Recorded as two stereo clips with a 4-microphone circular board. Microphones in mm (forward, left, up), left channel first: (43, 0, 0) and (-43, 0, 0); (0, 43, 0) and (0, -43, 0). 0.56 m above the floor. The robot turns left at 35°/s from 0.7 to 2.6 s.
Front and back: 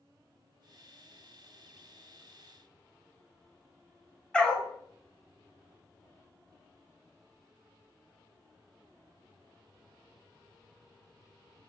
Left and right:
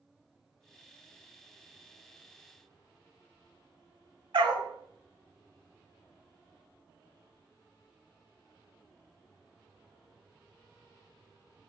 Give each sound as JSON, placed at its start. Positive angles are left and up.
{"t": 4.3, "sound": "a dog barking", "azimuth_deg": -80, "distance_m": 0.7}